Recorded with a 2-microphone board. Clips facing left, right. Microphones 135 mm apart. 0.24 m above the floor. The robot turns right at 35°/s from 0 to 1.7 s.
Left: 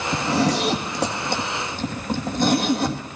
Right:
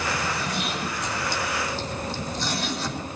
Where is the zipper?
75° left (ahead or behind), 2.5 m; by 3.0 s 50° left (ahead or behind), 2.5 m.